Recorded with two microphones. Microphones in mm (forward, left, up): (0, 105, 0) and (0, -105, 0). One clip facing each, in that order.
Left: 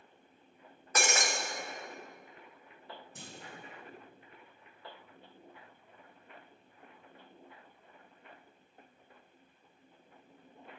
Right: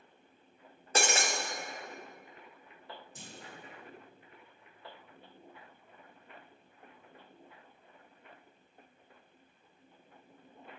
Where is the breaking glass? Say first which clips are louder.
Right 1 dB; 30° right (ahead or behind), 0.7 m.